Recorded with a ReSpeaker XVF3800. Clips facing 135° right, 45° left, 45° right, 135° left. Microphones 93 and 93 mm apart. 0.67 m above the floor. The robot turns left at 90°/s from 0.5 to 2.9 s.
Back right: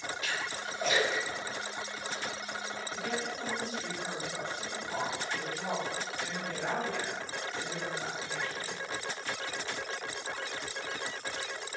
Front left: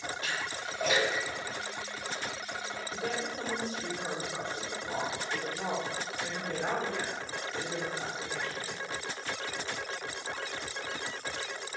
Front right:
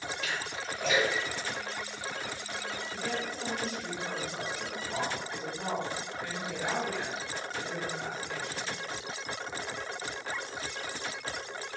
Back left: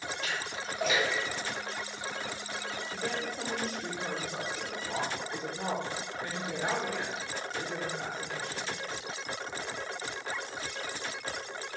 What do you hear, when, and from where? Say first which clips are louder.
0.2 s a splash: even, even; 95° left, 2.0 m; by 2.2 s 60° right, 2.0 m
2.9 s a woman speaking: front left 1 dB, even; 95° left, 1.7 m